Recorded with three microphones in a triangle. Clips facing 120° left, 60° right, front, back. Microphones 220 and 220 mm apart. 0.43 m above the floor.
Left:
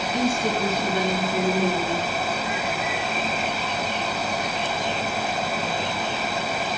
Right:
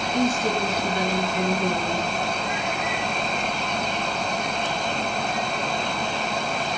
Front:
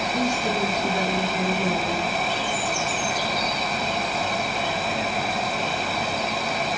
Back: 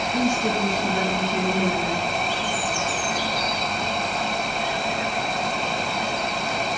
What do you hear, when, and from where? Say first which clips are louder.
0.1 s a woman speaking: right 1 dB, back 3 dB; straight behind, 5.5 m